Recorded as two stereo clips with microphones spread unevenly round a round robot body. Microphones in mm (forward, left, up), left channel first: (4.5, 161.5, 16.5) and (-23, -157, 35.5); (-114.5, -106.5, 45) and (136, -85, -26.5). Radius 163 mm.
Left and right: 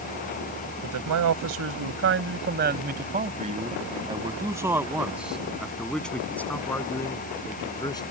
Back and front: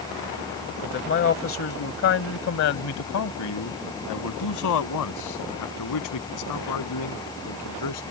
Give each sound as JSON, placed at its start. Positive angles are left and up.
{"t": 0.8, "sound": "a man speaking", "azimuth_deg": -130}